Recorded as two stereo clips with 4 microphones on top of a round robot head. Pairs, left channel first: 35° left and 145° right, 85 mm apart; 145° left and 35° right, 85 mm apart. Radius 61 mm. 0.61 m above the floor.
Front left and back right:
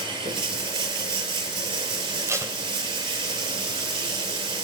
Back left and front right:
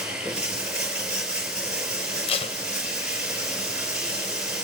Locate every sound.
0.0 s running water: 115° right, 4 m
2.3 s tape being pulled: 155° left, 2 m